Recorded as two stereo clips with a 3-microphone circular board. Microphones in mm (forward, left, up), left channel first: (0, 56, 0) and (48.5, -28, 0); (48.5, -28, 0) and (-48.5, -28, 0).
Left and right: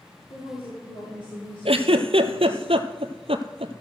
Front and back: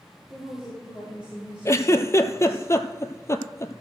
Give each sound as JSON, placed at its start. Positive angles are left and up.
{"t": 0.3, "sound": "a woman speaking", "azimuth_deg": 95, "distance_m": 4.0}
{"t": 1.6, "sound": "a giggle", "azimuth_deg": -60, "distance_m": 0.7}